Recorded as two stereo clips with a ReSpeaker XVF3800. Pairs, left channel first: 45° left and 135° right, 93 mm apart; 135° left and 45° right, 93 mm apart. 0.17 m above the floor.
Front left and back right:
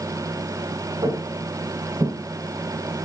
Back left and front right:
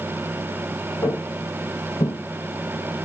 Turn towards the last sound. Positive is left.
turn(degrees=165)